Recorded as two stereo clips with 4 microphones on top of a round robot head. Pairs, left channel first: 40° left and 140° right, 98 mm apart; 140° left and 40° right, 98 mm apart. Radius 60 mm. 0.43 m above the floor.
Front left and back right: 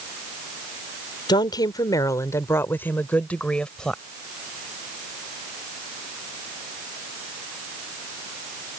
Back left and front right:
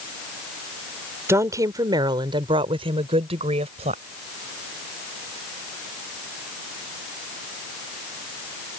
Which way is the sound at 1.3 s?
15° left.